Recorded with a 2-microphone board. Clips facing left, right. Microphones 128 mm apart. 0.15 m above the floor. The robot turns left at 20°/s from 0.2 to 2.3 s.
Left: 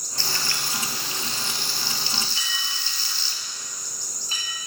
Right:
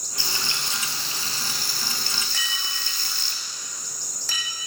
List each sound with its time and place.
0.2 s frying: 20° right, 2.0 m; by 3.3 s 60° right, 2.0 m
2.3 s a clink: 80° right, 4 m